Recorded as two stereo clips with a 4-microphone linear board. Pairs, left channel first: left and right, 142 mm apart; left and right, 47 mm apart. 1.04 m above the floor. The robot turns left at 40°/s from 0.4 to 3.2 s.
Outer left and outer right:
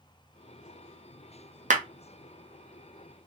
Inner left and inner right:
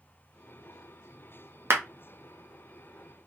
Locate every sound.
1.7 s a clap: 60° right (ahead or behind), 0.7 m; by 1.8 s 55° right (ahead or behind), 0.7 m